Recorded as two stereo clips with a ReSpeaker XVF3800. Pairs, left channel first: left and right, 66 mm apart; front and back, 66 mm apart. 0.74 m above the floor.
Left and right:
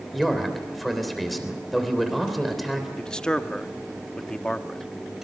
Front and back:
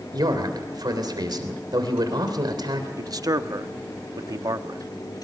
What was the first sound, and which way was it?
A man speaking, straight behind.